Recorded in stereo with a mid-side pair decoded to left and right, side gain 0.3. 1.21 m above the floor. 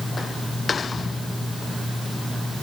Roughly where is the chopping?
No chopping in this recording.